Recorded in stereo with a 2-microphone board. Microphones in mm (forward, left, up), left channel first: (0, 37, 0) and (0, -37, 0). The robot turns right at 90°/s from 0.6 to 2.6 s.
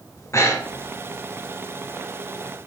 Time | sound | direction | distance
0.2 | breathing | 45° left (ahead or behind) | 0.9 m